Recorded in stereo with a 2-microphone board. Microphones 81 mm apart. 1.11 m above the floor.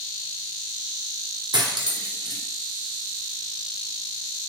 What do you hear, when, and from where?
1.5 s cutlery clinking: 70° right (ahead or behind), 0.6 m